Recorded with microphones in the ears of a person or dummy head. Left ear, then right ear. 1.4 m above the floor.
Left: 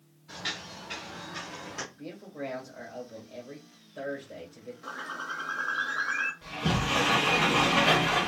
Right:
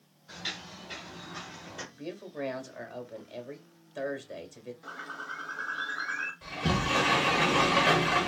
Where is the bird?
Centre (ahead or behind), 0.6 m.